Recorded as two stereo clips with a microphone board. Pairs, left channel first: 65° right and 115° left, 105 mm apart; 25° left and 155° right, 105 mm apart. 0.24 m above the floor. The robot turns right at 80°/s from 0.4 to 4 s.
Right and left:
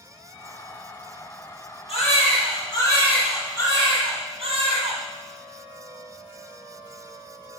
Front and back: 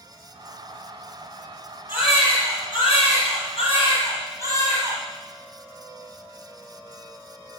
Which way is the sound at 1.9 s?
90° right.